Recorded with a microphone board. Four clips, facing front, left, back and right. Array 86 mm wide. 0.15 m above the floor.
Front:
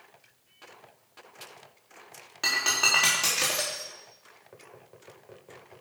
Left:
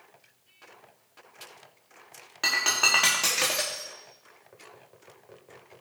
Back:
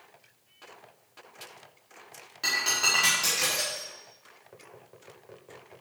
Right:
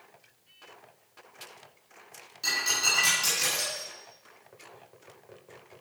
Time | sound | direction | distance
2.4 | breaking glass | 75° left | 5.5 m